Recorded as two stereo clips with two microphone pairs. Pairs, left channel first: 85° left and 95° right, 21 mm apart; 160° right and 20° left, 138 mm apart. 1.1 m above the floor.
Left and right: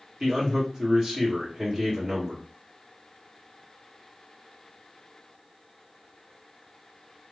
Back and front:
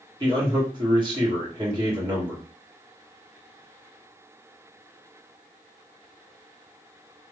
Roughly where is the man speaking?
Ahead right.